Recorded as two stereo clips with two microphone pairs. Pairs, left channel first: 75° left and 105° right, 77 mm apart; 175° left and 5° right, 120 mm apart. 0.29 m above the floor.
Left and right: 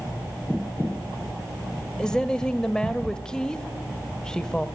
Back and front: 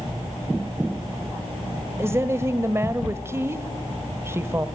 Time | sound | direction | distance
2.0 | a woman speaking | 15° left | 1.1 m